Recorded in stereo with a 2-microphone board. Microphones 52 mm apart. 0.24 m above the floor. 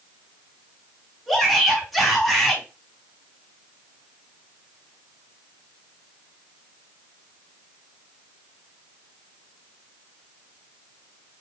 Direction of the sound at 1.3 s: 5° left (ahead or behind).